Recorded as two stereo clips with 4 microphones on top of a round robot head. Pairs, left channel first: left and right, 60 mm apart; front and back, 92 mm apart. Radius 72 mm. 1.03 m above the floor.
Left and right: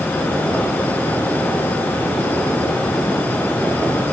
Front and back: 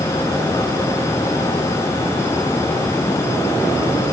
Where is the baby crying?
I don't hear a baby crying.